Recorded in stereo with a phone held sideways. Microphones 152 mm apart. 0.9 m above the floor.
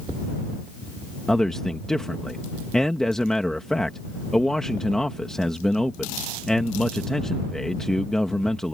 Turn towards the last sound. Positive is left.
turn(degrees=5)  # may be behind; listen again after turning